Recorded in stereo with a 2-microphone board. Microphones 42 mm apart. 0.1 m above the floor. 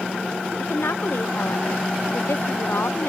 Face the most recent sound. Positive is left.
turn(degrees=80)